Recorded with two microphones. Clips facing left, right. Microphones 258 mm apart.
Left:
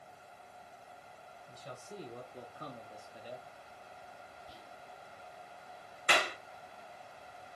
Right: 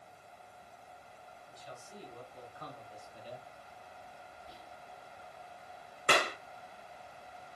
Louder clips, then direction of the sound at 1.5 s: Left 4 dB; 60° left (ahead or behind).